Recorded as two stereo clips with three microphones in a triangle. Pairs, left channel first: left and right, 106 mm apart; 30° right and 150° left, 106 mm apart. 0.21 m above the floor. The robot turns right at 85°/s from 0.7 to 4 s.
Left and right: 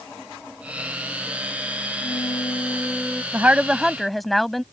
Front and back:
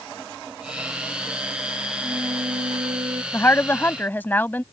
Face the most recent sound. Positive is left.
turn(degrees=0)